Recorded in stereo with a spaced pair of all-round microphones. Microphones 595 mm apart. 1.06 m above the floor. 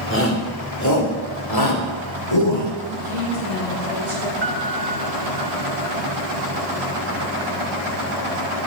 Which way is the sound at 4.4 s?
50° right (ahead or behind).